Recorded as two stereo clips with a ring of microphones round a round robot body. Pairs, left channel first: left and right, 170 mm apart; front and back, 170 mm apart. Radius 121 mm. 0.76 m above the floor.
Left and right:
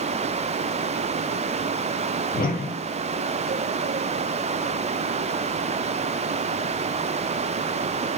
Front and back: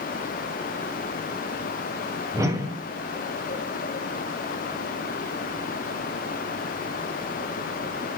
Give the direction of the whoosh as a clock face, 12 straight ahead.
8 o'clock.